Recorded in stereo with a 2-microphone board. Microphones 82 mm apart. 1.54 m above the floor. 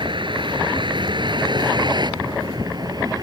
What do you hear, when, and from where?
0.0 s a vehicle: 85° right; by 3.2 s 55° right (ahead or behind)